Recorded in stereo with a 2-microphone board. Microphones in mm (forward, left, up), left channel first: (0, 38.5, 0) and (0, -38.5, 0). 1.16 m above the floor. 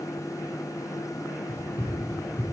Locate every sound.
1.5 s running footsteps: 70° left (ahead or behind), 4.5 m